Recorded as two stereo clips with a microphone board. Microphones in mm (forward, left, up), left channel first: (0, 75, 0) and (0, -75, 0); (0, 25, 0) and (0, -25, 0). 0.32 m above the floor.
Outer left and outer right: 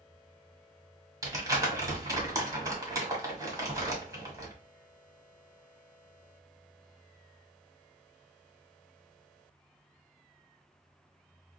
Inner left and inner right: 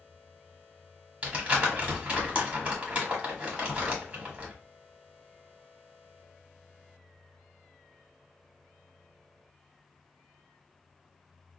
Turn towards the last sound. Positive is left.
turn(degrees=-25)  # may be behind; listen again after turning